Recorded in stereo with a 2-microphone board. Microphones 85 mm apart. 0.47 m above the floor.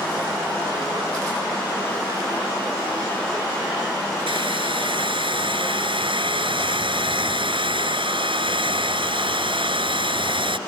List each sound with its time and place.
4.3 s a hair dryer: 80° right